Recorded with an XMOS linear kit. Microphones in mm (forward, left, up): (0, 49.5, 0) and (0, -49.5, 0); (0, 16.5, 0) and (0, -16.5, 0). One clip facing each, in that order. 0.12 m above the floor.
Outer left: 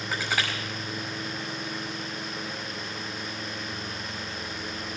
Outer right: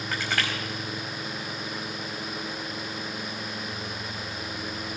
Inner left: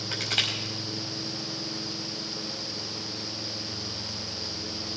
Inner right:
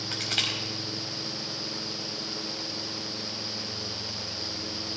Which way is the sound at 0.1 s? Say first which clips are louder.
Even, inner left 2 dB; 5° left (ahead or behind).